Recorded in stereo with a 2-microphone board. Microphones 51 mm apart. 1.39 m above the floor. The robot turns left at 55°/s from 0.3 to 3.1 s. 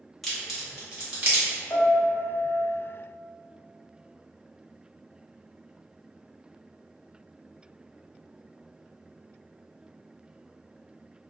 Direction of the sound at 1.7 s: 110° left.